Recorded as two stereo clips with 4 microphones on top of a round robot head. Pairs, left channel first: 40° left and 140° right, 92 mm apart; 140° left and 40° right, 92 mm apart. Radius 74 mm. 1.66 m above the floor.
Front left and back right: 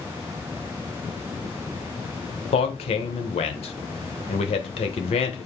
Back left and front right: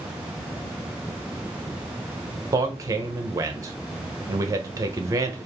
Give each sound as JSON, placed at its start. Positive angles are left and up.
{"t": 2.5, "sound": "a man speaking", "azimuth_deg": 20, "distance_m": 0.7}